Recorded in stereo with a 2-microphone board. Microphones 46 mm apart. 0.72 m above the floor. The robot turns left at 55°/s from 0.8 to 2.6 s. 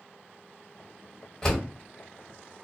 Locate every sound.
1.4 s a door slam: 15° left (ahead or behind), 1.3 m; by 1.7 s centre (ahead or behind), 1.3 m